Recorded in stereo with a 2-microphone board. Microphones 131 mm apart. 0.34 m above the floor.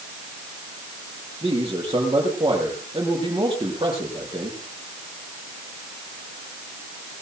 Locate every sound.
1.4 s a man speaking: 35° right (ahead or behind), 7 m